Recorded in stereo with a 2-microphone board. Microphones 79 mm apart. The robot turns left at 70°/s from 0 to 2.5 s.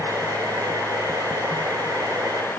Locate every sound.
Only background noise.